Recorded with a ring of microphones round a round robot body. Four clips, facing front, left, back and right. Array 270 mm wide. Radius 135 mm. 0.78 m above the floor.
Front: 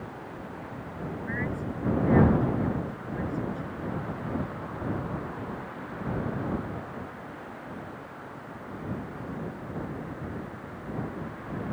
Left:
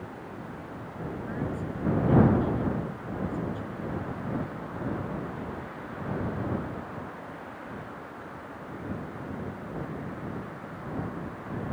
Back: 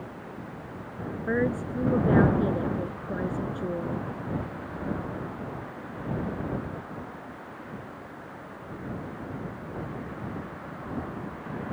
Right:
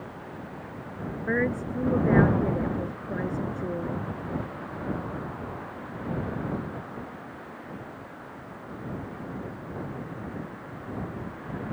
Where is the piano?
No piano in this recording.